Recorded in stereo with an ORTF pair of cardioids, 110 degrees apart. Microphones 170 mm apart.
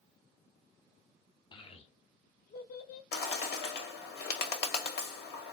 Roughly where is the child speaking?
Ahead left.